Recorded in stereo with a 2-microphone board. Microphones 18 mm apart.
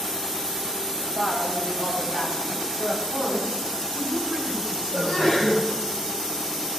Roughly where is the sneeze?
Left.